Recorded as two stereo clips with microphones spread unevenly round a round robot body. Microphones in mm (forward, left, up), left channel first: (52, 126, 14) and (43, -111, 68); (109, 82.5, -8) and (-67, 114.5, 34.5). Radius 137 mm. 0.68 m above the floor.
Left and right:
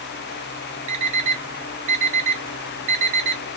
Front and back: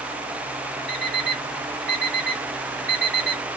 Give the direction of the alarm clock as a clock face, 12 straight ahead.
3 o'clock.